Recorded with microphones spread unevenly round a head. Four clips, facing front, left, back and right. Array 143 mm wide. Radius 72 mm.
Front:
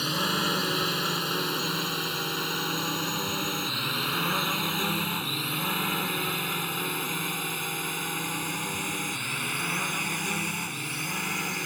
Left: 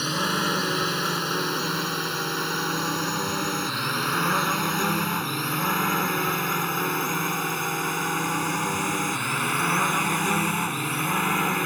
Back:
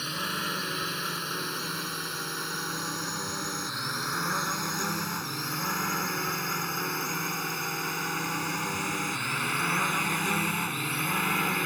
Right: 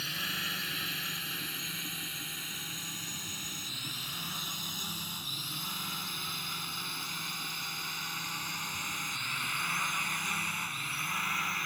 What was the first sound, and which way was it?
A drone, 60° left.